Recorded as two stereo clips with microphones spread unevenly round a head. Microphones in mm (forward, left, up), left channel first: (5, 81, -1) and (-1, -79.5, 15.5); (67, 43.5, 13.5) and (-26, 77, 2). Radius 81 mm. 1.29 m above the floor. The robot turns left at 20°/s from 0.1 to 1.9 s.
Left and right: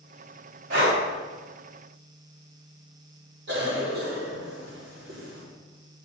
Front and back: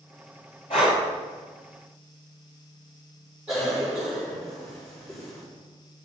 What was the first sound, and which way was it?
Breathing, 75° right.